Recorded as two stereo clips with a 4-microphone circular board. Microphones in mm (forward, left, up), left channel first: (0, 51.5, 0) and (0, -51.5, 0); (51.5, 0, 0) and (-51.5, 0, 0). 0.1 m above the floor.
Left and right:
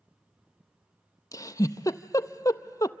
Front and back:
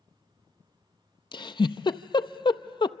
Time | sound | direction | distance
1.3 | a giggle | 35° left | 0.5 m